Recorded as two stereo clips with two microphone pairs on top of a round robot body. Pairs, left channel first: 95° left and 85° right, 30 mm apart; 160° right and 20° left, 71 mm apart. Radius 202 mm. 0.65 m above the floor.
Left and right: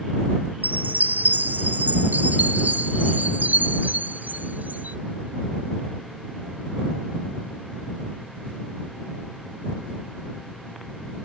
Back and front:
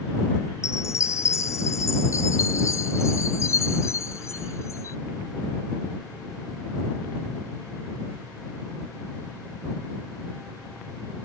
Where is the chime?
105° right.